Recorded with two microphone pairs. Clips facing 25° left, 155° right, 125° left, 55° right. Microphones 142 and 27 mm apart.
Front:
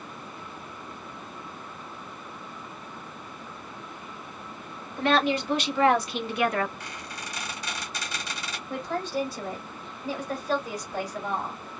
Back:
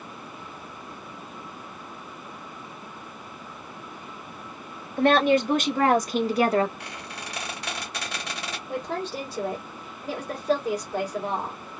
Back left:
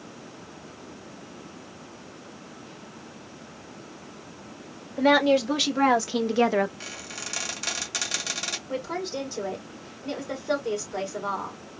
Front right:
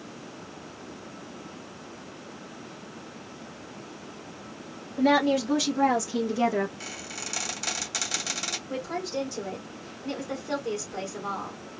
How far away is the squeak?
About 1.8 m.